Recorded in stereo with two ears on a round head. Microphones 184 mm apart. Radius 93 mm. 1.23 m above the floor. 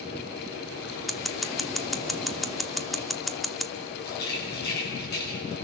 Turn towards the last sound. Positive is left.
turn(degrees=55)  # may be behind; listen again after turning